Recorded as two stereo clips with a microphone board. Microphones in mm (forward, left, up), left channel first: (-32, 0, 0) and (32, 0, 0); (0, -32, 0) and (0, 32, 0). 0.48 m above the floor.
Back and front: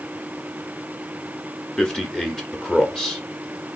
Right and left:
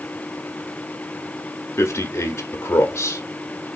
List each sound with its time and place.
1.8 s a man speaking: 105° right, 0.9 m